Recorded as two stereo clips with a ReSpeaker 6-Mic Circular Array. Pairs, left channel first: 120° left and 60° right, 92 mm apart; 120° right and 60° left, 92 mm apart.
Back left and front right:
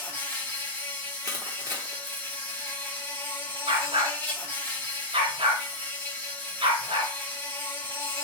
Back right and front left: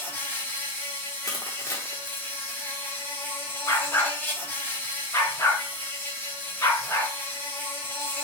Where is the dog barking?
60° right, 1.6 m.